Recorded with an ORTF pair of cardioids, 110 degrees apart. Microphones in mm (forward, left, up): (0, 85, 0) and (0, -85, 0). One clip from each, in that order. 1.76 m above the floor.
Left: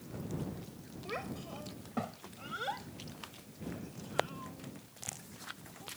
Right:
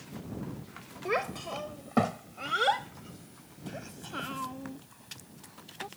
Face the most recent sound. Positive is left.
turn(degrees=-70)